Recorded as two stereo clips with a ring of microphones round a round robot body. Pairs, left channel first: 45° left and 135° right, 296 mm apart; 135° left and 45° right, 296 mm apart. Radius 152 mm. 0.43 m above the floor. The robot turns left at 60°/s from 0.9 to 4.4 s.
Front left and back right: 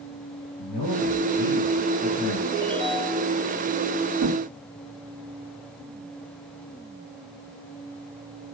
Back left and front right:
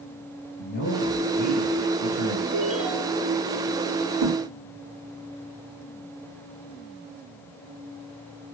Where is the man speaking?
80° left, 8.5 m; by 2.4 s 10° right, 8.5 m.